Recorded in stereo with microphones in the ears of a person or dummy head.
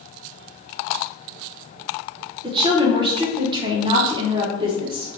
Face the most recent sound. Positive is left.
turn(degrees=-25)  # may be behind; listen again after turning